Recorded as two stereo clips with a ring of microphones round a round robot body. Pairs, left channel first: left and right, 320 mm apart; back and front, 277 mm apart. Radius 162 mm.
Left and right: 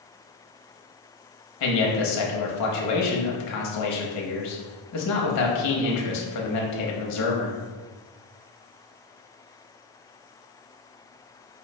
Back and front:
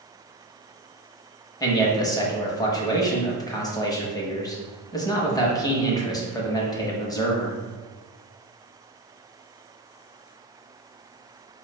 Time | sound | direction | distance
1.6 | a man speaking | 105° left | 0.9 m